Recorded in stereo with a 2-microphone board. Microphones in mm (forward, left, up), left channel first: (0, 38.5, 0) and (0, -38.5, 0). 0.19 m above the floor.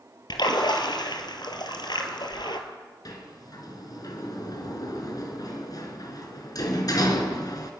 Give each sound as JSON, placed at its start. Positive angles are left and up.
{"t": 0.3, "sound": "a splash", "side_deg": 70, "distance_m": 2.5}
{"t": 3.0, "sound": "a sliding door", "side_deg": 55, "distance_m": 3.0}